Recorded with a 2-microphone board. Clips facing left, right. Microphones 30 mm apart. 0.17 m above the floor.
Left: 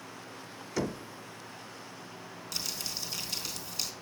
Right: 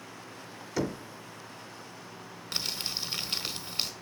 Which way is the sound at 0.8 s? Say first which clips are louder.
Right 2 dB; 5° right (ahead or behind).